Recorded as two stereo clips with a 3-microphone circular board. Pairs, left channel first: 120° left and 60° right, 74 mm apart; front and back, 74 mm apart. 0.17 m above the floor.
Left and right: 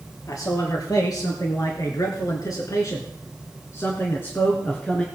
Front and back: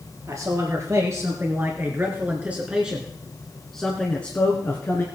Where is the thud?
No thud in this recording.